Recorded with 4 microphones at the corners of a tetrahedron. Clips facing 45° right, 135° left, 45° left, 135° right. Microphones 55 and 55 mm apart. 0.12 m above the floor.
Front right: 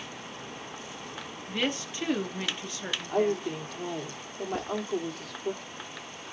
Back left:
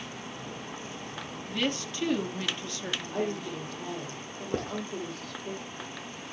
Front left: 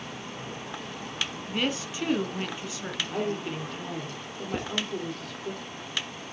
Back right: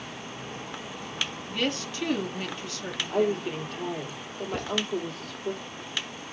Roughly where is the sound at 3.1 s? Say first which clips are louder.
Front right 7 dB, back right 6 dB; ahead right.